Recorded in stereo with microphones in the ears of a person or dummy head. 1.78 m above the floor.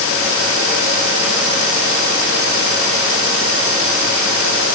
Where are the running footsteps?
I don't hear running footsteps.